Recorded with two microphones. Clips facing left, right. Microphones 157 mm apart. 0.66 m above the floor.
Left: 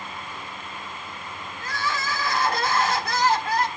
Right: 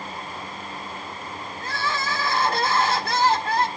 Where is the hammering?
I don't hear hammering.